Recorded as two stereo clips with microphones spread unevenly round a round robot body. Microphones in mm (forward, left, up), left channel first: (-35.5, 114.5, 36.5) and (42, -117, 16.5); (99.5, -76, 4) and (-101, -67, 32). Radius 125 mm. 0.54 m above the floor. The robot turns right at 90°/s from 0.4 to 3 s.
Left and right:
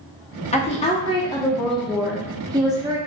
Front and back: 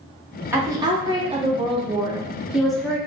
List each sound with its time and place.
0.5 s a woman speaking: 95° left, 0.7 m; by 3.0 s 40° right, 0.7 m